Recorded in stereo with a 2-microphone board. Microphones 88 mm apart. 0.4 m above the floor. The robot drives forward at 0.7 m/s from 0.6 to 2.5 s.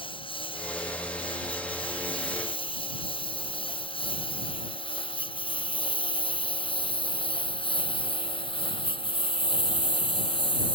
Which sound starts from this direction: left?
A lawn mower, at 0.0 s.